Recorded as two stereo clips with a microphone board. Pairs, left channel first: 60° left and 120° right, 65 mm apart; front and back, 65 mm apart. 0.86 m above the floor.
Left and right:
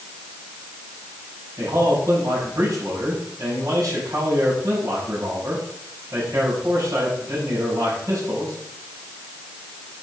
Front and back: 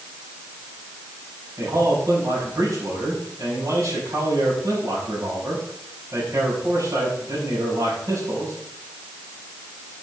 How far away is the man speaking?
About 6 m.